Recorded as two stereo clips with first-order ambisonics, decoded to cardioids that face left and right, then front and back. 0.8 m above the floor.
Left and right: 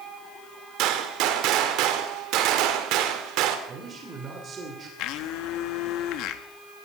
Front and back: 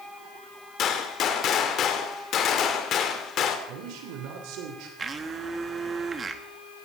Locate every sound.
0.8 s a gunshot: 55° right, 1.7 m
3.7 s a man speaking: 155° right, 2.5 m
5.0 s a blender: 110° left, 1.0 m